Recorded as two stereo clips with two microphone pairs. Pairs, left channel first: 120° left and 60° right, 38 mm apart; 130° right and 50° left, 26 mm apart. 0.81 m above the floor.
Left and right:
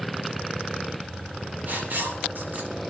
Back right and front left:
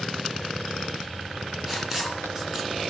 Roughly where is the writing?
Ahead right.